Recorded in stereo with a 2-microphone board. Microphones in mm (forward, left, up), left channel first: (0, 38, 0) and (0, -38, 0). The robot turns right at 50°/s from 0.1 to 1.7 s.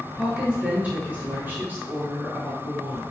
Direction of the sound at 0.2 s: 10° right (ahead or behind).